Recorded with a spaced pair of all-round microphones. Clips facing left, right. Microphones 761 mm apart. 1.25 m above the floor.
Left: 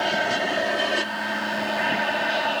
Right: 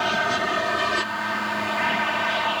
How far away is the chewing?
No chewing in this recording.